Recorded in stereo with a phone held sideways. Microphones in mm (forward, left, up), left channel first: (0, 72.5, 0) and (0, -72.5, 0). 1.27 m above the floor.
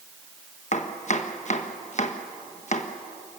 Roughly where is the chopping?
Left.